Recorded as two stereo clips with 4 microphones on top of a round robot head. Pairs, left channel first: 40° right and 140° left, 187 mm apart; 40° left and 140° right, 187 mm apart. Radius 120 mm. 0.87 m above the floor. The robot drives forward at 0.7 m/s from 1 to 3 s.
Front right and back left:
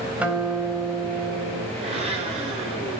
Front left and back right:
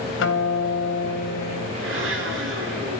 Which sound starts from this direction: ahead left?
A guitar, at 0.2 s.